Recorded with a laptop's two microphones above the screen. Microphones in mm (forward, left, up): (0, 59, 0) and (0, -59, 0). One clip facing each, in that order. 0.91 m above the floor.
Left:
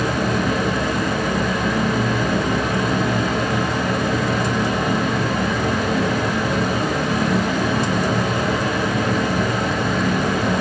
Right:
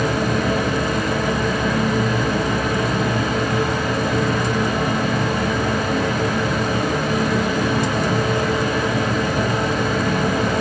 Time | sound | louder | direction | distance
0.0 | a fan | right 1 dB | 40° right (ahead or behind) | 3 m